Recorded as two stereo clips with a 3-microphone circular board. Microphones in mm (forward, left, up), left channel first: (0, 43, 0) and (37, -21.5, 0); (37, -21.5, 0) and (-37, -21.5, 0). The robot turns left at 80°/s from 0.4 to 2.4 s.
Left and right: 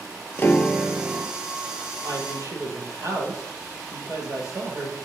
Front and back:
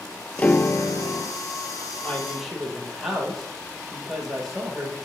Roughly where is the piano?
Ahead left.